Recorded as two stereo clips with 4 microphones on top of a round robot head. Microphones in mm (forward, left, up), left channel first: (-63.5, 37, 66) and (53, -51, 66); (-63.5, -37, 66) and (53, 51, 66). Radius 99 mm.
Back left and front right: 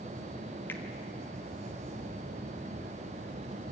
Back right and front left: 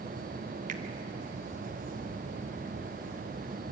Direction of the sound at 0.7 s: 65° left.